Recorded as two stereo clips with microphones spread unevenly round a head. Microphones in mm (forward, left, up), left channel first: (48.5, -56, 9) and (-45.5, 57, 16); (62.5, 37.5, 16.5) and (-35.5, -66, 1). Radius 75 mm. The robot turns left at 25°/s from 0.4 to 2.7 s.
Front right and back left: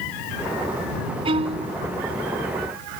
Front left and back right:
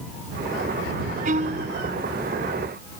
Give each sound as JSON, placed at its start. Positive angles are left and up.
{"t": 1.2, "sound": "a violin", "azimuth_deg": -175}